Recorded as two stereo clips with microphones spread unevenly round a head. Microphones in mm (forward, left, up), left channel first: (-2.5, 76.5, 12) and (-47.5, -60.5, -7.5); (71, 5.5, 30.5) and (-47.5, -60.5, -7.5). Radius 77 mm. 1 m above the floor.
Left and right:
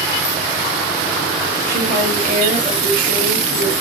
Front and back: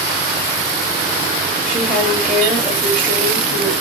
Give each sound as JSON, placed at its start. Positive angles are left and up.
{"t": 1.7, "sound": "a woman speaking", "azimuth_deg": -80, "distance_m": 1.9}